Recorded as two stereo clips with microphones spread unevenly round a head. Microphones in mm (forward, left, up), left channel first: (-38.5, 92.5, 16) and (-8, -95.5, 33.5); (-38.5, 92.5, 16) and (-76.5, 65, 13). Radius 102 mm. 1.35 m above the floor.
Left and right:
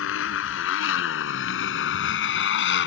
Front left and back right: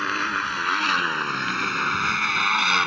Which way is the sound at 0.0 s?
120° left.